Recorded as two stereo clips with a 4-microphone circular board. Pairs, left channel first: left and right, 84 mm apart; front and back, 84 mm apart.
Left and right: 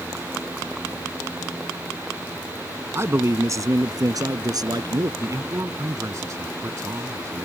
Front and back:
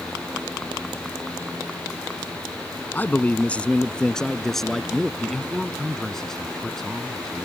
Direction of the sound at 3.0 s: 55° right.